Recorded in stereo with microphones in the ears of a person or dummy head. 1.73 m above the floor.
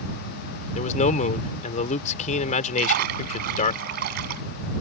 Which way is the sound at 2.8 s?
55° right (ahead or behind).